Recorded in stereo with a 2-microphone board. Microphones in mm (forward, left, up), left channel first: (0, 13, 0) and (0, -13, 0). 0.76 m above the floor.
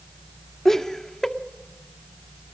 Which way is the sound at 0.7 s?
15° left (ahead or behind).